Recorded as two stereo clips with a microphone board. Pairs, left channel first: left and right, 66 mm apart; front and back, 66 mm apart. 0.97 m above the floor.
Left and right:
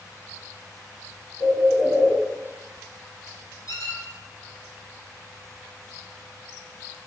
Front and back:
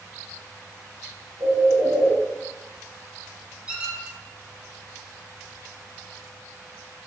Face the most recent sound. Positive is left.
turn(degrees=110)